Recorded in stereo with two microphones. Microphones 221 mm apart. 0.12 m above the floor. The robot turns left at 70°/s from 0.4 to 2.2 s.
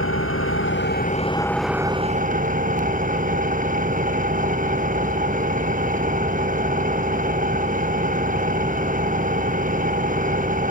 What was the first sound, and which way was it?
An engine running, 85° left.